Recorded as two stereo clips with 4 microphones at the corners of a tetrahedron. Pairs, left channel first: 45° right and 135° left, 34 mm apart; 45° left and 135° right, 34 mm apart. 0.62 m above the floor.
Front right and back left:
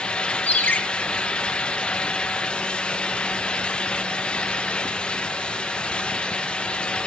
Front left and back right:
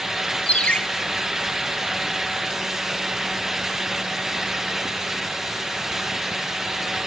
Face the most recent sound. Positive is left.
turn(degrees=-15)